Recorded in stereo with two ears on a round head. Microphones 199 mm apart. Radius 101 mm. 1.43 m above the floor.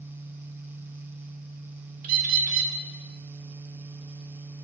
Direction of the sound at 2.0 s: 40° right (ahead or behind).